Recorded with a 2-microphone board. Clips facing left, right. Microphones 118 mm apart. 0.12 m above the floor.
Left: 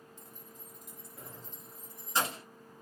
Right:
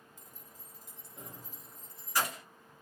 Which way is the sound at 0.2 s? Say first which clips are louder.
Left 4 dB; 45° right (ahead or behind).